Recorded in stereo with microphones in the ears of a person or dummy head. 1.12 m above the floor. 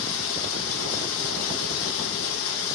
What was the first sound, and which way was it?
Running water, 65° left (ahead or behind).